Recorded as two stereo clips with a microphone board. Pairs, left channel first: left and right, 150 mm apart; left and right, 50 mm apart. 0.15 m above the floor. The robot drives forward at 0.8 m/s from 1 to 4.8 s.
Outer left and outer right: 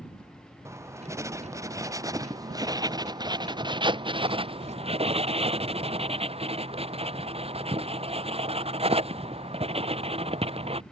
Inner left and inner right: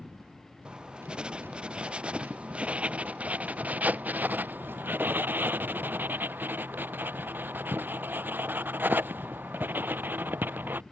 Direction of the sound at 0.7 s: 20° right (ahead or behind).